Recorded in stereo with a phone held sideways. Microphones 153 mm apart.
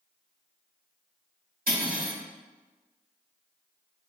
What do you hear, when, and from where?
1.7 s cutlery clinking: 80° right, 1.7 m